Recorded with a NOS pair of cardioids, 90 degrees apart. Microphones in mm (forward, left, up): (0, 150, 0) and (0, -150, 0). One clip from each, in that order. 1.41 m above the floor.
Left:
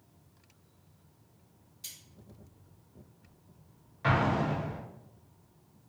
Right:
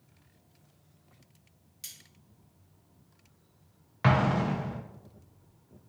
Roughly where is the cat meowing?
I don't hear a cat meowing.